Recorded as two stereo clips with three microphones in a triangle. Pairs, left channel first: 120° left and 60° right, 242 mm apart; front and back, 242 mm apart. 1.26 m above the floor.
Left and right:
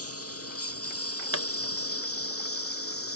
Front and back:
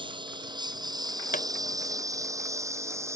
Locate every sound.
0.0 s a lawn mower: 110° left; by 3.2 s 100° left
1.3 s a pop: 55° right